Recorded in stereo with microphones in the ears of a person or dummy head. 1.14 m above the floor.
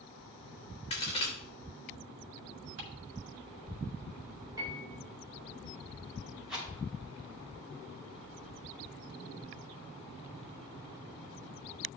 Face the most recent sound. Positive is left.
turn(degrees=0)  # may be behind; listen again after turning